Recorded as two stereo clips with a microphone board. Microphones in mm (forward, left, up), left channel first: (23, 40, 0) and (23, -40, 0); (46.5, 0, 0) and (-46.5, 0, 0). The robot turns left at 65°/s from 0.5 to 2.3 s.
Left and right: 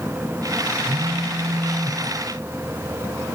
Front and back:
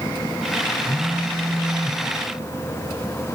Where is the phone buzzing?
55° right, 5 m; by 2.0 s 130° right, 5 m.